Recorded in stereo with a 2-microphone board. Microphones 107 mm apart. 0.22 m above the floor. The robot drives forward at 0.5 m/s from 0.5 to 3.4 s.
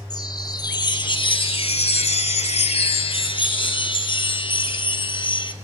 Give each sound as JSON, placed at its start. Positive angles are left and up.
{"t": 0.1, "sound": "a chime", "side_deg": 40, "distance_m": 1.1}